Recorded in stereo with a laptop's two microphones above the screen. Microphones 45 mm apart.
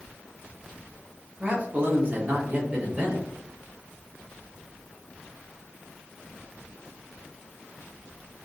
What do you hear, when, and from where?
1.4 s a man speaking: 30° right (ahead or behind), 0.8 m; by 3.3 s 25° right (ahead or behind), 1.0 m